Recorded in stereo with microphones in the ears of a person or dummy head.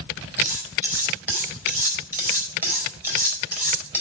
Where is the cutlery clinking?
15° right (ahead or behind), 4 m.